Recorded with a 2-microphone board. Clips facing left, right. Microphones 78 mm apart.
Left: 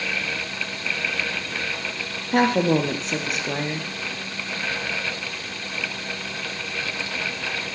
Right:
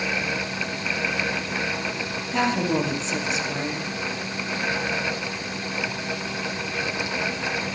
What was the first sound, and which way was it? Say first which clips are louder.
A woman speaking: left 4 dB; 45° left (ahead or behind).